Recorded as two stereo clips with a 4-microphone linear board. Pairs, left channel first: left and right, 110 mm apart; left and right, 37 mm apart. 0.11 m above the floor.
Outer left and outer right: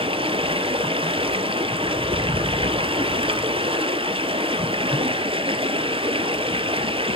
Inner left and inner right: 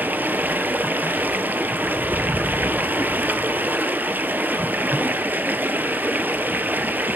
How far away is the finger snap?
I don't hear a finger snap.